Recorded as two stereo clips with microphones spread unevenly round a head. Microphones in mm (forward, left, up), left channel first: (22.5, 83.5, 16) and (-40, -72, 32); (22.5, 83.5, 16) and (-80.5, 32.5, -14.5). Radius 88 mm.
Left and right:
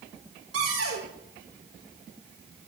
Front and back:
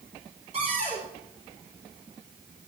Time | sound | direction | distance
0.5 | a cupboard door | 95° right | 4.5 m